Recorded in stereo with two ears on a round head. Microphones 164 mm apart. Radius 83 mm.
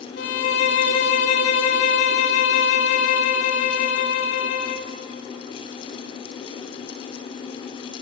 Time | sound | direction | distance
0.2 | a violin | 60° left (ahead or behind) | 2.5 m